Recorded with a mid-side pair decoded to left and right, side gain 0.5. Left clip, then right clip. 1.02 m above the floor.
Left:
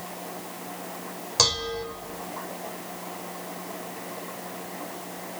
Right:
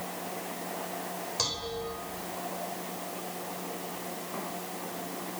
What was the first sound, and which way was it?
Dishes clattering, 60° left.